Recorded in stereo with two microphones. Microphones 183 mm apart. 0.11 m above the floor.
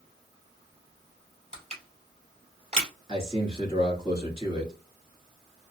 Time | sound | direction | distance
1.5 | crushing | 35° right (ahead or behind) | 1.9 m
3.1 | a man speaking | 30° right (ahead or behind) | 1.4 m